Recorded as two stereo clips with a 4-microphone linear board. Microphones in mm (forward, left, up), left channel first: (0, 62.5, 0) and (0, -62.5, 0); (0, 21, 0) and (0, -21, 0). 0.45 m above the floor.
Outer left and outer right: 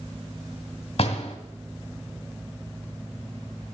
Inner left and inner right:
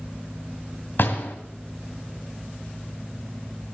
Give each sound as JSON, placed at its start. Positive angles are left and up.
{"t": 1.0, "sound": "a door slam", "side_deg": 55, "distance_m": 1.9}